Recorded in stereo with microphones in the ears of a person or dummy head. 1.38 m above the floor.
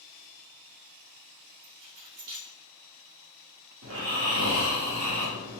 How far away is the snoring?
About 1.2 m.